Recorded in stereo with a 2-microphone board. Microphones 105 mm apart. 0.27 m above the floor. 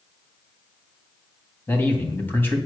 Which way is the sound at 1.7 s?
20° left (ahead or behind).